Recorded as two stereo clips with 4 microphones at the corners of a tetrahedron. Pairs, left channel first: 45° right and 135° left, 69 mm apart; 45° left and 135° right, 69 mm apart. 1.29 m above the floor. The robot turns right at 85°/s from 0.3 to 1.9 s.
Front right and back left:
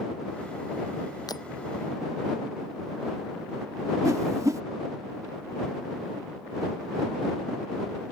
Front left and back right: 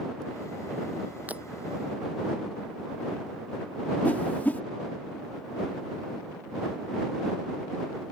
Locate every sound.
1.3 s breaking glass: 70° right; by 1.5 s 55° right
4.0 s a whoosh: 105° left